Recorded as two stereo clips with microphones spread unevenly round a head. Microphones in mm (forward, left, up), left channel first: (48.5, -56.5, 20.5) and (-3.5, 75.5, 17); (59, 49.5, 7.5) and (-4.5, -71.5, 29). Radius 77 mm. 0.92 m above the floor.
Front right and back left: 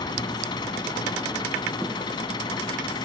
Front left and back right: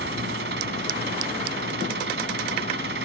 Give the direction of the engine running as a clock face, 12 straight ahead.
4 o'clock.